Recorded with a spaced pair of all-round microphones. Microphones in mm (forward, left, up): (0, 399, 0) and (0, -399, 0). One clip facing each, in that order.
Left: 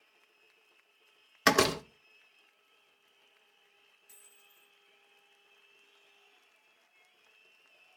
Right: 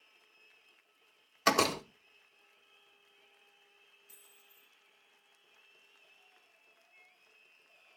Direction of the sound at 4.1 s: 45° left (ahead or behind).